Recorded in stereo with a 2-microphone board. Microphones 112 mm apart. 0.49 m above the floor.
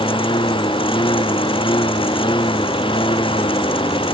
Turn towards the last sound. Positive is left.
turn(degrees=50)  # may be behind; listen again after turning